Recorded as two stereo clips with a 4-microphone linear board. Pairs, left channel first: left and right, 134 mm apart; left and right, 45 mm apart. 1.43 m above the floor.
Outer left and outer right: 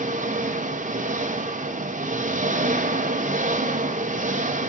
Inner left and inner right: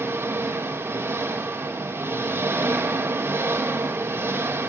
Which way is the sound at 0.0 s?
80° right.